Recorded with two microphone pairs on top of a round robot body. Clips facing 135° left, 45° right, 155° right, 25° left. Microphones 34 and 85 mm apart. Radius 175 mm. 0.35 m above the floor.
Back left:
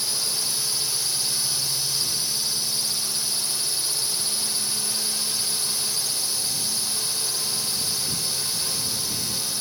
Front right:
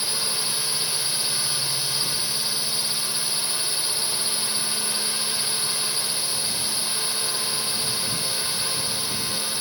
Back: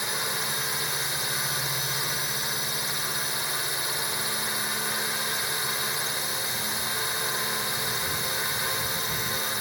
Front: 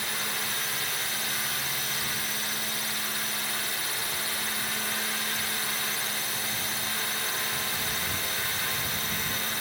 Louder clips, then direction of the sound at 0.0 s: Front right 1 dB, back 2 dB; 95° right.